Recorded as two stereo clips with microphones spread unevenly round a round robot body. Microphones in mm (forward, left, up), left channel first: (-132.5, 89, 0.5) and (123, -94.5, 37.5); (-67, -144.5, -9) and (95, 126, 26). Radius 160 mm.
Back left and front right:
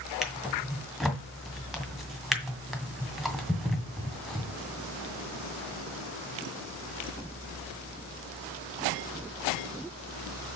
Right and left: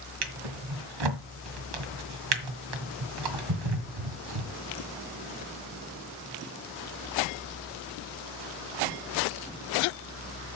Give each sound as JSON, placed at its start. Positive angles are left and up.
{"t": 0.2, "sound": "a drawer", "azimuth_deg": 55, "distance_m": 1.9}